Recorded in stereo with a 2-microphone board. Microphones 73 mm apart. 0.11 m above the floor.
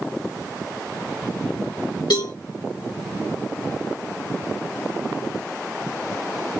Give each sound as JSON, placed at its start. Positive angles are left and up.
{"t": 2.1, "sound": "a cowbell", "side_deg": 85, "distance_m": 3.0}